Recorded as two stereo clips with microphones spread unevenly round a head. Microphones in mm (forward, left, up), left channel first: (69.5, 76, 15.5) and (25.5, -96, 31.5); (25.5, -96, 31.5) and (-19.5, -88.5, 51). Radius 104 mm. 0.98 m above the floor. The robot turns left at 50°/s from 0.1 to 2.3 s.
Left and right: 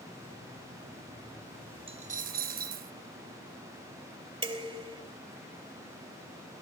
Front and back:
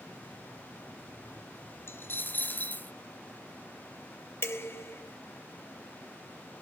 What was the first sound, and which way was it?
A dropped coin, 45° right.